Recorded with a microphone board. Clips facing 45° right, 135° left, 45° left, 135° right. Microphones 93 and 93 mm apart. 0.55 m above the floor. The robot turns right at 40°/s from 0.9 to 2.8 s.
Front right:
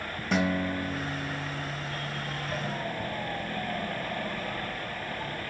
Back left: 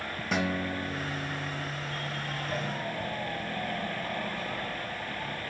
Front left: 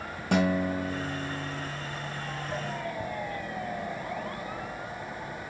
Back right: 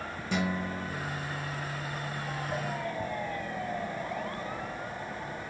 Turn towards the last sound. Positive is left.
turn(degrees=120)